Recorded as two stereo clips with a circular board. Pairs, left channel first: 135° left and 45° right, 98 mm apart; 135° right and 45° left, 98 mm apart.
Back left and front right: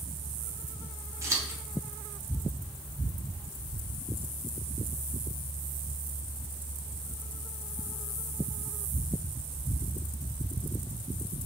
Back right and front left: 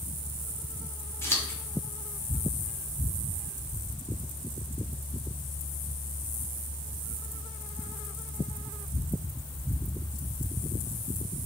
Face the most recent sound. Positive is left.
turn(degrees=-90)